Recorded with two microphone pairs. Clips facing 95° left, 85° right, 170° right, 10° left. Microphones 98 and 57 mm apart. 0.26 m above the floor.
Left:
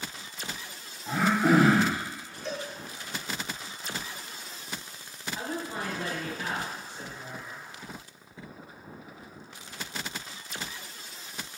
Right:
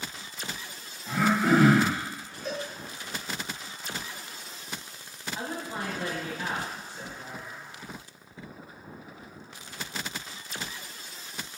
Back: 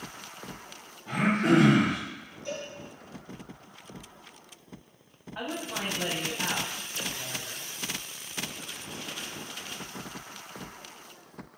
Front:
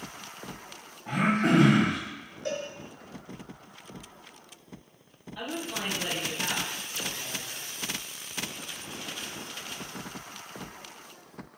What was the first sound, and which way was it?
Throat clearing, 55° left.